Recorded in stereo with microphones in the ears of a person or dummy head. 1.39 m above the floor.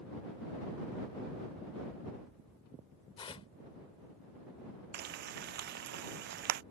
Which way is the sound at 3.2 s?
25° left (ahead or behind).